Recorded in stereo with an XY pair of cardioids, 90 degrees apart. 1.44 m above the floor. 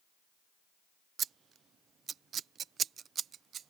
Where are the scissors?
65° right.